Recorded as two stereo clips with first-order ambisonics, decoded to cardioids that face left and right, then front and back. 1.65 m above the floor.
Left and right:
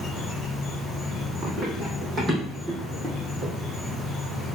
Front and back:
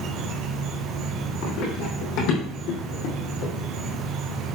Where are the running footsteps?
15° right, 5 m.